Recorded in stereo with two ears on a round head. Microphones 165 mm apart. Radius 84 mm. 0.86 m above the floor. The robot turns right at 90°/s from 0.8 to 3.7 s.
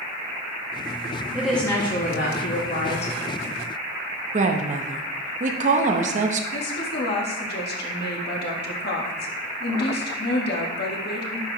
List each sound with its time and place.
1.3 s a woman speaking: 15° right, 1.2 m; by 3.1 s 150° left, 1.2 m
4.3 s a woman speaking: 40° right (ahead or behind), 0.8 m
6.5 s a woman speaking: 60° left (ahead or behind), 1.4 m